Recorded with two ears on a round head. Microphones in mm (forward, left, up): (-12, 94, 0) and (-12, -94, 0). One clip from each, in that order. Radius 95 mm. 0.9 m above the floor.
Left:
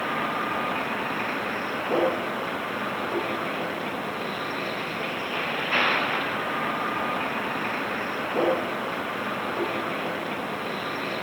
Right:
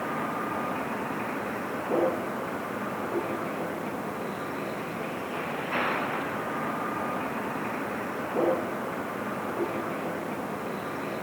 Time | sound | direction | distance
0.0 | a vehicle | 70° left (ahead or behind) | ?